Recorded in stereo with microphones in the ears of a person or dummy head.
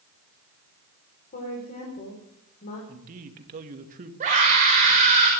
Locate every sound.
1.3 s a woman speaking: 45° left (ahead or behind), 5 m
2.9 s a man speaking: 45° right (ahead or behind), 2.5 m
4.2 s a scream: 45° right (ahead or behind), 5 m